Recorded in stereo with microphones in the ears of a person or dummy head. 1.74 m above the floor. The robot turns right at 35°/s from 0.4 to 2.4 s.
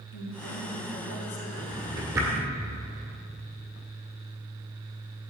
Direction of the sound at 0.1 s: 95° left.